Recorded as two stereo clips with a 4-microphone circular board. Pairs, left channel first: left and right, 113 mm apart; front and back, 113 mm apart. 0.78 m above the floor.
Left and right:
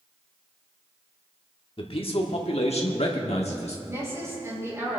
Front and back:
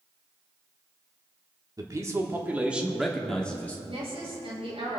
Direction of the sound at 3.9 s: 155° right.